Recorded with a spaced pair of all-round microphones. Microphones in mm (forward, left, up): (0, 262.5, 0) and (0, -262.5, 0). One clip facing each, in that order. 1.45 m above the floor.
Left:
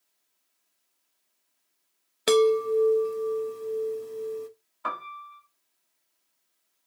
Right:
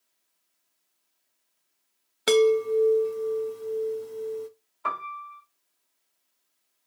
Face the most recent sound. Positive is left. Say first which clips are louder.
# right 1 dB
turn(degrees=35)  # may be behind; listen again after turning